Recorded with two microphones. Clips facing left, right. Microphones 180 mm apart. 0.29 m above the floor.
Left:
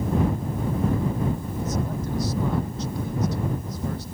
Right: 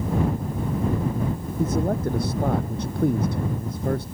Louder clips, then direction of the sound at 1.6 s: Right 10 dB; 60° right (ahead or behind).